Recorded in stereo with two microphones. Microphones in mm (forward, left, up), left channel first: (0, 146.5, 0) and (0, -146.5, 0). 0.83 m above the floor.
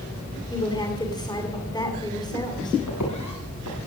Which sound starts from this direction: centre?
A woman speaking, at 0.5 s.